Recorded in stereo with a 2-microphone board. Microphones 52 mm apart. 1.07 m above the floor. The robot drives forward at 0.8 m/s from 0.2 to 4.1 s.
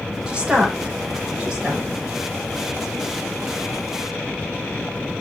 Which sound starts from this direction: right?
A woman speaking, at 0.3 s.